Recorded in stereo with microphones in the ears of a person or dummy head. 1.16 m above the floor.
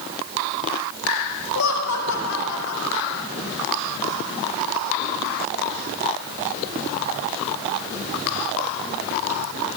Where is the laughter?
90° left, 4 m.